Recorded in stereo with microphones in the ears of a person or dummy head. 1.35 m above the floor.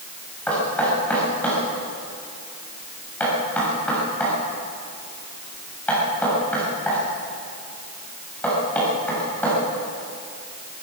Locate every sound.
0.5 s knocking: 10° left (ahead or behind), 7.5 m